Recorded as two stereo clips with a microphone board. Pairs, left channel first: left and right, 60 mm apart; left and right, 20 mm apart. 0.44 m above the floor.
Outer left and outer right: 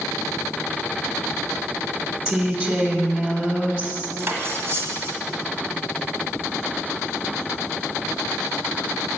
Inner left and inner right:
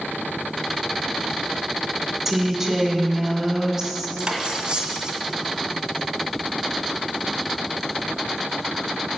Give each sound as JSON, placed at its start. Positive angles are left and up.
{"t": 2.2, "sound": "a woman speaking", "side_deg": 5, "distance_m": 1.1}
{"t": 4.2, "sound": "cutlery clinking", "side_deg": -35, "distance_m": 1.4}